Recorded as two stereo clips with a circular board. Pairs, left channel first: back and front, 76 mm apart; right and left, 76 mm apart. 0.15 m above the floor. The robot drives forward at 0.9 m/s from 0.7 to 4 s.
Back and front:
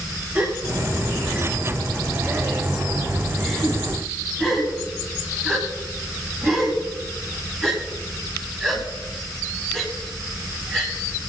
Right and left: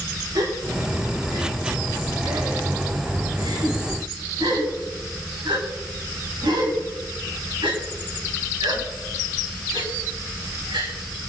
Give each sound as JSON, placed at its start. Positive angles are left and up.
{"t": 0.3, "sound": "a gasp", "azimuth_deg": 65, "distance_m": 7.0}